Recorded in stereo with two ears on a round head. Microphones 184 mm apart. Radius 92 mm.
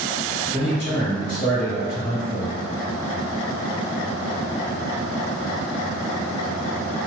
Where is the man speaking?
25° left (ahead or behind), 1.7 m; by 2.7 s 20° right (ahead or behind), 1.4 m.